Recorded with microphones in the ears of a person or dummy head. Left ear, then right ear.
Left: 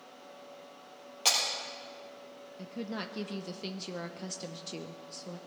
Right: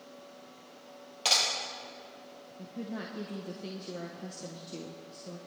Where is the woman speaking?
50° left (ahead or behind), 0.8 m.